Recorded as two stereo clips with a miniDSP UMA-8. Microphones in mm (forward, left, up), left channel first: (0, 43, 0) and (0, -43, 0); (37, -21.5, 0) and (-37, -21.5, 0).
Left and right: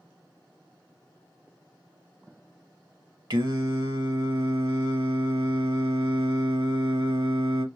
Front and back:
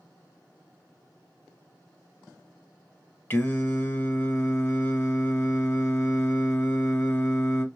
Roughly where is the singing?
Ahead right.